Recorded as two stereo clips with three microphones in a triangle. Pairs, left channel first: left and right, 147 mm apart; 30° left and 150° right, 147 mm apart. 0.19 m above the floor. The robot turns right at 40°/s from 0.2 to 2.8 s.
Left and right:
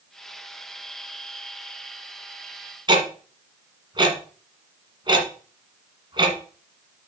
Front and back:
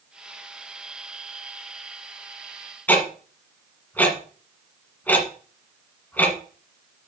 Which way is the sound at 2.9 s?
45° right.